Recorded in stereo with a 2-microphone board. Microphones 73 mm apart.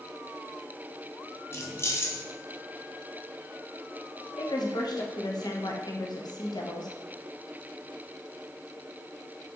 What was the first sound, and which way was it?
Keys jangling, 35° left (ahead or behind).